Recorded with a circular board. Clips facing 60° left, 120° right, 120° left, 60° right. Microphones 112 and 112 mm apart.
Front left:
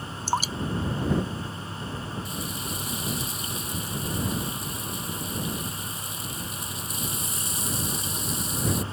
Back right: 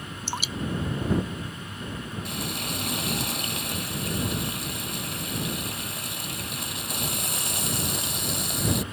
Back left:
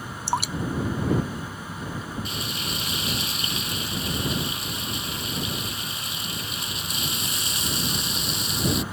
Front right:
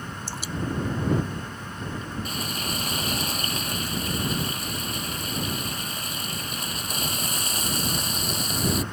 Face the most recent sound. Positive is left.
turn(degrees=-105)